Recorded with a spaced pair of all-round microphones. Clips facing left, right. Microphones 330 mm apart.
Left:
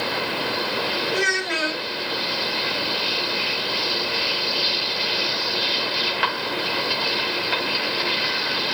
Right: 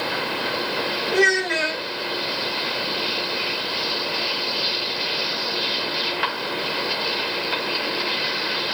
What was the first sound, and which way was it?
A child speaking, 60° right (ahead or behind).